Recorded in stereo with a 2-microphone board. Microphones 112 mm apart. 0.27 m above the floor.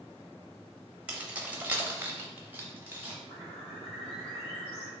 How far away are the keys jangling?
About 0.8 m.